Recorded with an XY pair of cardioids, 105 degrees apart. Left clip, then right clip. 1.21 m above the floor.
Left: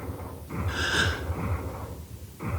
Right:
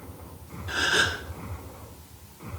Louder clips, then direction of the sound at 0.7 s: Right 3 dB; 30° right.